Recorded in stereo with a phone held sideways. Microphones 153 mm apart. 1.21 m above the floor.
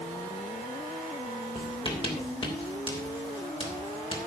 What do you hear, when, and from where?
1.6 s writing: 35° left (ahead or behind), 3 m